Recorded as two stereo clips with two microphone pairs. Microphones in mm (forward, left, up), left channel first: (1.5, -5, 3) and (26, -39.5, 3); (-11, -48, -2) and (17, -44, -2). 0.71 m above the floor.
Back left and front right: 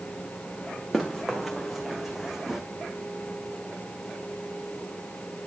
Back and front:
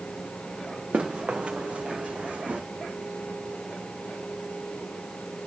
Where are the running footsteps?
30° left, 3.5 m; by 2.6 s 20° left, 2.5 m.